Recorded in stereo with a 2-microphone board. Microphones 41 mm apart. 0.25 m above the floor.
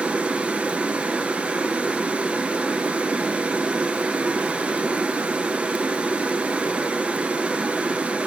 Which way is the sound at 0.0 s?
30° right (ahead or behind).